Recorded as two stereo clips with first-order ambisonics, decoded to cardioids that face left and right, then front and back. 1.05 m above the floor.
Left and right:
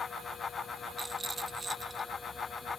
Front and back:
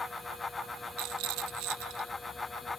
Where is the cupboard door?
I don't hear a cupboard door.